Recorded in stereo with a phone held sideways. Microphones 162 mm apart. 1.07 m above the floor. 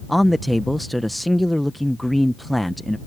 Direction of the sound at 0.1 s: Centre (ahead or behind).